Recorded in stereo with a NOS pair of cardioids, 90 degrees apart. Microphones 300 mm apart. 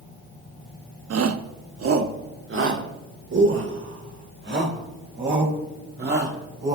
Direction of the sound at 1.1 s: 55° right.